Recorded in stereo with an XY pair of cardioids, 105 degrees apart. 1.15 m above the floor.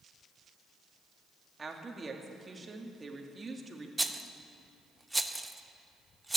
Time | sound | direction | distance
1.6 | a woman speaking | 25° right | 2 m
4.0 | a rattle | 10° right | 0.8 m